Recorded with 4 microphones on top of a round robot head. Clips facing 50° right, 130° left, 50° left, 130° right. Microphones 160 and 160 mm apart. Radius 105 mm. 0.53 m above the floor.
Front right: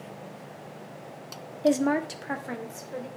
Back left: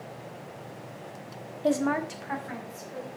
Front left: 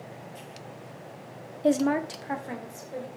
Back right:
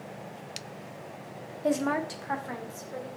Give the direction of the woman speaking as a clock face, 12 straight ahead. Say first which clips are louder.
Front right 3 dB, front left 4 dB; 12 o'clock.